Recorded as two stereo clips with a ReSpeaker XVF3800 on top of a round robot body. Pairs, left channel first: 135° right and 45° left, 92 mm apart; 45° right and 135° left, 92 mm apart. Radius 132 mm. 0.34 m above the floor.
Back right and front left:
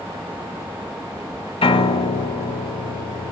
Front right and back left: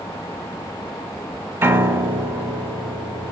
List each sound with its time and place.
1.6 s a piano: 160° right, 0.9 m